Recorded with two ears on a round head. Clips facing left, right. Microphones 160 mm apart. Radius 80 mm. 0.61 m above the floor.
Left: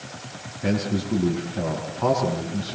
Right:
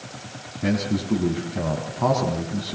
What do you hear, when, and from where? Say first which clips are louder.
0.6 s a man speaking: right 1 dB; 50° right (ahead or behind), 4.5 m